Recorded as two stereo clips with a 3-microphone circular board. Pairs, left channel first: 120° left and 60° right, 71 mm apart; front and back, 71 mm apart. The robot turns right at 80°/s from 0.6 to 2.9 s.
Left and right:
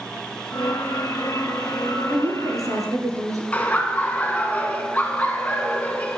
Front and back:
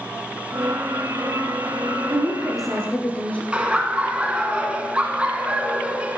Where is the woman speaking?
130° right, 2 m; by 3.4 s 70° right, 2 m.